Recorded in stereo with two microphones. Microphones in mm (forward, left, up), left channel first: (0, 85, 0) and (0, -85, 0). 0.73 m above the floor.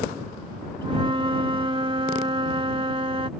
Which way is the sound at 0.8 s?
30° right (ahead or behind).